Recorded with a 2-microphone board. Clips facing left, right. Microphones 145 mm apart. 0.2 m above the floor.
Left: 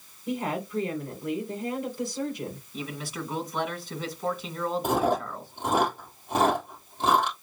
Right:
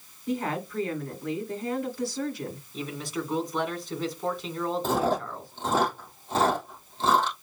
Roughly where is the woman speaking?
Centre.